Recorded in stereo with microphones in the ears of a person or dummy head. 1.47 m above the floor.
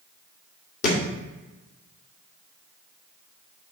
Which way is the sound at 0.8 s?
55° left (ahead or behind).